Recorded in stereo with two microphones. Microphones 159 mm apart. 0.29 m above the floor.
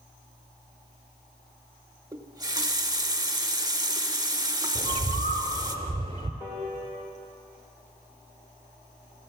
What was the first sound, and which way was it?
A running tap, 25° right (ahead or behind).